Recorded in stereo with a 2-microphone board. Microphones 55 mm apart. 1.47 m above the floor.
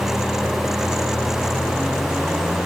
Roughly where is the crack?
No crack in this recording.